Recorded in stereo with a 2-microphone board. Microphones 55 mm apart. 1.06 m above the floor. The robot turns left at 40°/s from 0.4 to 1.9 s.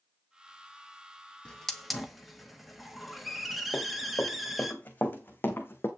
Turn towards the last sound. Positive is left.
turn(degrees=40)  # may be behind; listen again after turning